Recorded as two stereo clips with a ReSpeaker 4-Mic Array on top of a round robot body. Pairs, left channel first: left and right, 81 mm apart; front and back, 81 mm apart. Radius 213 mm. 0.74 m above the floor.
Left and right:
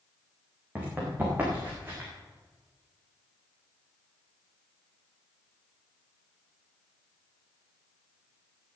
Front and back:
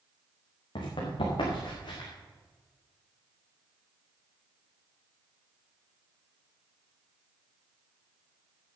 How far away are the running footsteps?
About 5 m.